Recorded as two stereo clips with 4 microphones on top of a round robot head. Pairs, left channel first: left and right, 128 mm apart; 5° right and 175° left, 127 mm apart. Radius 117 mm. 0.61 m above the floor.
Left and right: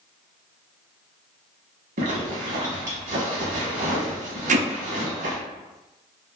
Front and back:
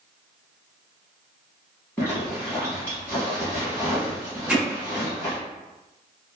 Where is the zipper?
85° right, 0.8 m.